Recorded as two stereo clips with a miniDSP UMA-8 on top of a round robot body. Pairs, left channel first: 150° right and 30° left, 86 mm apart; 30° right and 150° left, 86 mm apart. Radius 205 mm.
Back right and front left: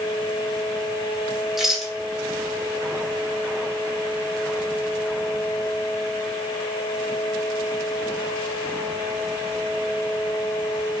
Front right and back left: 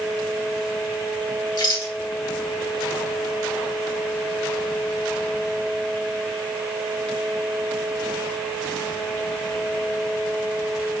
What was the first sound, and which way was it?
A rattle, 60° right.